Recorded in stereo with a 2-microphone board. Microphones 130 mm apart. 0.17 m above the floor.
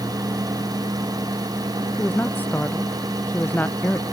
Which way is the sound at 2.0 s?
15° left (ahead or behind).